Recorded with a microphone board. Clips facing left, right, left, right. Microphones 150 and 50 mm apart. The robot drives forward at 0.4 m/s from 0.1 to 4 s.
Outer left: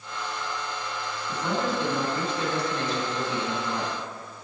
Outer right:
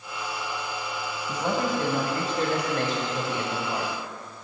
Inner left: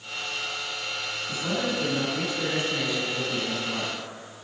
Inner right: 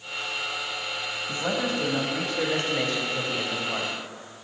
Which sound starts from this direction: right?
A man speaking, at 1.3 s.